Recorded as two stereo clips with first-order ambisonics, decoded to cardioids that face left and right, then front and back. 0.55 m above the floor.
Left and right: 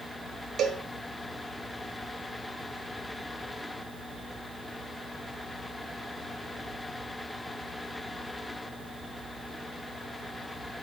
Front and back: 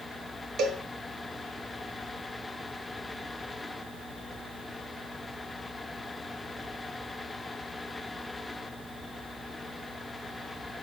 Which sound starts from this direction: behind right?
A cowbell, at 0.6 s.